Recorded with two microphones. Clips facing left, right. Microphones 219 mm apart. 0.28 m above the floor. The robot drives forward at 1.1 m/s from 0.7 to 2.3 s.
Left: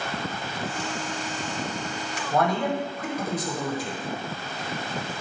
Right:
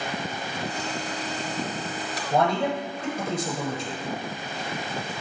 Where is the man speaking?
30° right (ahead or behind), 1.2 m.